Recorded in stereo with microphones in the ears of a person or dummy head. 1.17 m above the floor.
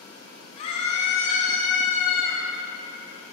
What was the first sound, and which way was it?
A scream, 35° left (ahead or behind).